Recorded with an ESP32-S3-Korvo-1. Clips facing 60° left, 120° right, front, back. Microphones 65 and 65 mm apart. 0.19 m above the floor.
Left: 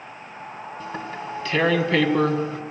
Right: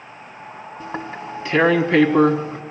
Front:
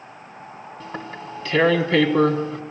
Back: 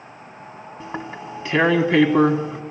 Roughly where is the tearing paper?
Behind right.